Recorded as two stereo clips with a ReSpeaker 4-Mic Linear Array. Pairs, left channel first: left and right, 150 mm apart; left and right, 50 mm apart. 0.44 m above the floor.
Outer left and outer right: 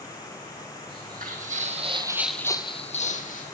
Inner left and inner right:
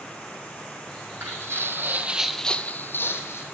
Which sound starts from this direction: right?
Footsteps, at 0.9 s.